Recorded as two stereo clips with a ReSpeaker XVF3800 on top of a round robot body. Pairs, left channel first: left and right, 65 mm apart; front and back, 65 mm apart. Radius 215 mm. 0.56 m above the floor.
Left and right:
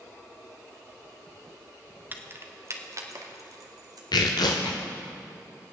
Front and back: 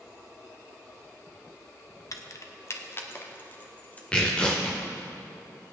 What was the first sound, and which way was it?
Keys jangling, 30° right.